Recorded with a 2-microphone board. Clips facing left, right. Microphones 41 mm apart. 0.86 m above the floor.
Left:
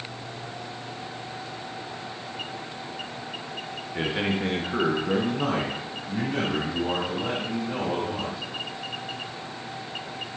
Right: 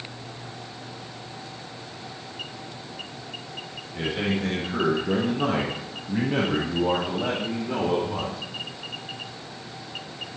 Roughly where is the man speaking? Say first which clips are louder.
Even; left.